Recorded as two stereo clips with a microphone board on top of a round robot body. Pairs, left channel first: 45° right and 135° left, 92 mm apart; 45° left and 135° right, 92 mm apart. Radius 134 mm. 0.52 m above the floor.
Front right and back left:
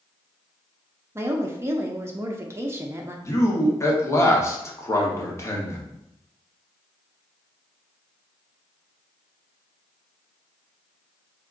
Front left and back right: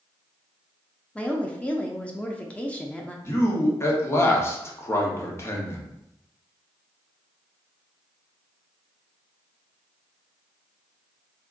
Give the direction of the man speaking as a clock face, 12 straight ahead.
12 o'clock.